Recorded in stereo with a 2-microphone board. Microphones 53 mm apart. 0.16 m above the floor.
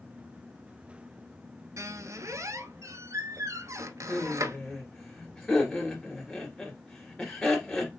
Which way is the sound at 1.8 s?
70° right (ahead or behind).